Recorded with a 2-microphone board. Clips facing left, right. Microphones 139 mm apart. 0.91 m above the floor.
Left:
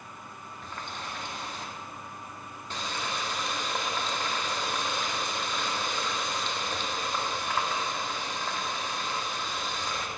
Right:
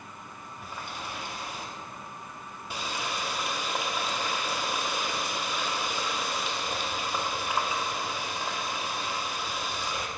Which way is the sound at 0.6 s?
10° right (ahead or behind).